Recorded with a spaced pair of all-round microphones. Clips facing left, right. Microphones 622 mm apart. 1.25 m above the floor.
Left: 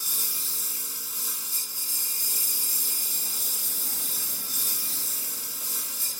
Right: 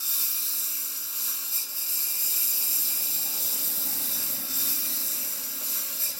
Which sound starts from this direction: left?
A lawn mower, at 0.0 s.